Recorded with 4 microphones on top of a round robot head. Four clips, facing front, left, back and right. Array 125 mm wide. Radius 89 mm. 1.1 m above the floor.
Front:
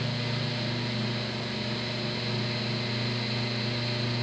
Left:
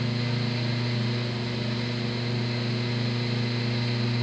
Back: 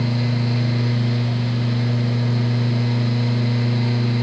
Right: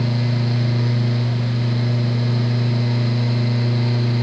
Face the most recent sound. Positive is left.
No sound to turn to.